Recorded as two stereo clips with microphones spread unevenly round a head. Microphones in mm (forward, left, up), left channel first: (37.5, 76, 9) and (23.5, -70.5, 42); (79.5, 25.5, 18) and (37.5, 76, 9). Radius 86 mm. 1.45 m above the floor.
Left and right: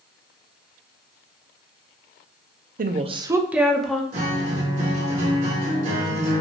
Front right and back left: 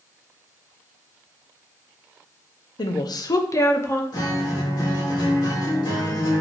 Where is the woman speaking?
65° right, 0.6 m; by 4.0 s 5° left, 1.2 m.